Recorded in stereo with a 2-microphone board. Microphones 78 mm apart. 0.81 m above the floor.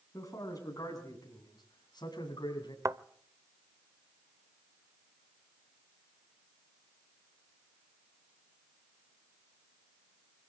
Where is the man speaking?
40° left (ahead or behind), 8.5 m; by 2.8 s 60° left (ahead or behind), 7.5 m.